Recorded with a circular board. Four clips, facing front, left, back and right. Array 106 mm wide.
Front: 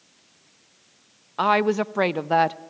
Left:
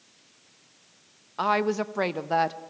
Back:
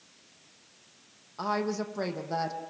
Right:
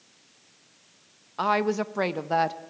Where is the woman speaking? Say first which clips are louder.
Even, front 10 dB; straight ahead, 0.5 m.